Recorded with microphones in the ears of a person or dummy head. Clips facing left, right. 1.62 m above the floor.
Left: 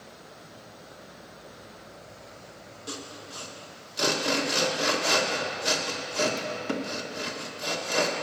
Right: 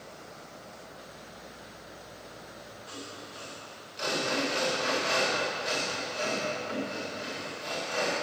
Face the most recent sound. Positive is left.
turn(degrees=70)  # may be behind; listen again after turning